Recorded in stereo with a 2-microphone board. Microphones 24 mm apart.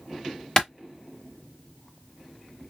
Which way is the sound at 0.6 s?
30° left (ahead or behind).